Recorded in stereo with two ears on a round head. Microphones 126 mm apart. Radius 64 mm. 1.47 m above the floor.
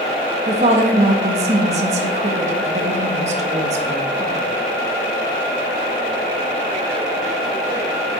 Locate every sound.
0.5 s a woman speaking: 50° right (ahead or behind), 1.6 m